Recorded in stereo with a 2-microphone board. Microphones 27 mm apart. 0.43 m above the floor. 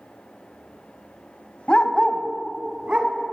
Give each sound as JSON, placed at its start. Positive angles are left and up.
{"t": 1.7, "sound": "a dog barking", "side_deg": 45, "distance_m": 0.6}